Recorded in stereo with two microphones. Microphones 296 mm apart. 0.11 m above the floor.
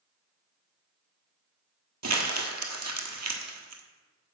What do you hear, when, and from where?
2.0 s crumpling: 65° right (ahead or behind), 1.0 m